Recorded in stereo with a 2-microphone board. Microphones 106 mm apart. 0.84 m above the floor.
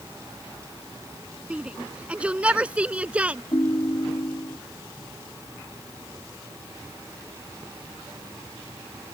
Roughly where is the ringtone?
Left.